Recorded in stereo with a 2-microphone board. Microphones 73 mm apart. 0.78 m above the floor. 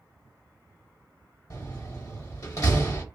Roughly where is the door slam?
Left.